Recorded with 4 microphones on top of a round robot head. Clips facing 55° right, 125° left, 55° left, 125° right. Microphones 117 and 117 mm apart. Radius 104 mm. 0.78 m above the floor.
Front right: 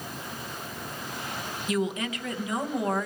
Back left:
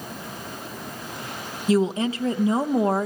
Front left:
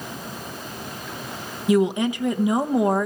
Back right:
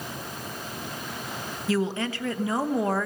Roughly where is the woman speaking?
Left.